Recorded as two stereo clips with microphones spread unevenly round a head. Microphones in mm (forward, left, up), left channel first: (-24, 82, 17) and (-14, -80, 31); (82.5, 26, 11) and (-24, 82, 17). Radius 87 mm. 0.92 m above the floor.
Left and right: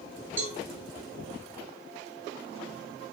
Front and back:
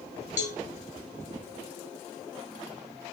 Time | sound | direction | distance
0.4 | a cowbell | 10° right | 2.0 m